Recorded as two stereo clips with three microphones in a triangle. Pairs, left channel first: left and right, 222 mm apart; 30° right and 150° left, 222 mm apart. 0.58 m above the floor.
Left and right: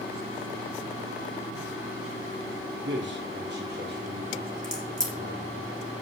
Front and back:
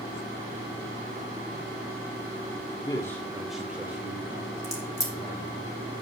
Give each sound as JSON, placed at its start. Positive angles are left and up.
{"t": 2.8, "sound": "a man speaking", "azimuth_deg": -100, "distance_m": 1.8}
{"t": 4.6, "sound": "a crack", "azimuth_deg": 0, "distance_m": 2.5}